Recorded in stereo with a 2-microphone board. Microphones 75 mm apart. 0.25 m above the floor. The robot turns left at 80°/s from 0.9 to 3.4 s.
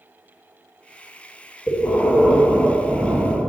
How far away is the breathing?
About 1.6 m.